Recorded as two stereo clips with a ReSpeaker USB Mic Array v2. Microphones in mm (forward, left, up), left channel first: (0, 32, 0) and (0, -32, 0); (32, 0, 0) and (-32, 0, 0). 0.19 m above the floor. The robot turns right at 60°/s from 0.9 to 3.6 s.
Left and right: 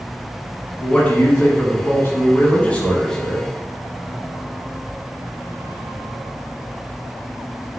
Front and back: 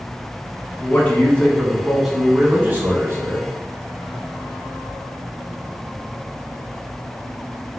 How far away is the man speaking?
About 1.4 m.